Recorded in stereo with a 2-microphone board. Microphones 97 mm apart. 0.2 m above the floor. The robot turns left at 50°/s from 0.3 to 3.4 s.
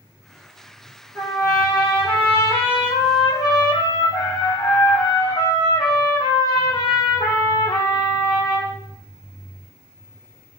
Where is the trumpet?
155° left, 1.5 m; by 8.7 s 40° left, 1.5 m.